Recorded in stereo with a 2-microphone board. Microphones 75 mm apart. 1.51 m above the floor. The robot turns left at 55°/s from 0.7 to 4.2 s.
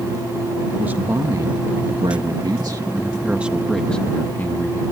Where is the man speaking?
20° right; by 4.8 s 155° left.